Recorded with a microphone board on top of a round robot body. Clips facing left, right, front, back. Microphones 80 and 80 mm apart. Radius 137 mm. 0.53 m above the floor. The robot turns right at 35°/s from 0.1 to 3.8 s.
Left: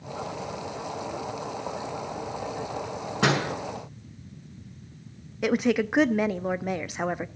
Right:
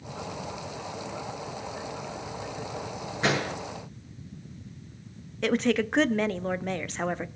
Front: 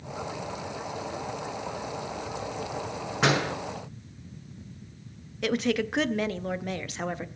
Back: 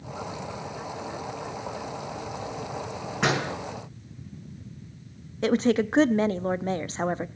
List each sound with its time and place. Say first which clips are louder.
3.2 s a door slam: left 3 dB, front 1 dB; 90° left, 6.5 m; by 3.5 s 100° left, 6.5 m
5.4 s a woman speaking: left 1 dB, back 4 dB; 160° left, 0.8 m